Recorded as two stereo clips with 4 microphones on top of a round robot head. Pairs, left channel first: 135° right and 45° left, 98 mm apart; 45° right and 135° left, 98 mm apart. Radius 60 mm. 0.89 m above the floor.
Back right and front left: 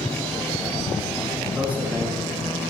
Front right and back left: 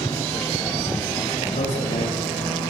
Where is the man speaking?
30° right, 7.5 m.